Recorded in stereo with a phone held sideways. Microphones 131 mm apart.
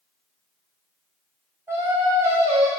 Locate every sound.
1.7 s singing: 20° right (ahead or behind), 0.5 m